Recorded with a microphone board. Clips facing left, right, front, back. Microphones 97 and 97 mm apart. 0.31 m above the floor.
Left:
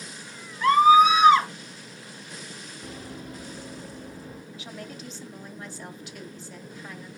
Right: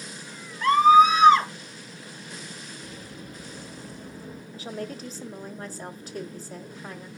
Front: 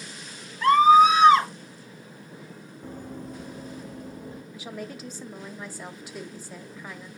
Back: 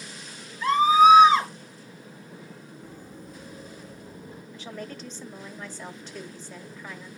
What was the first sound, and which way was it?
A scream, 5° left.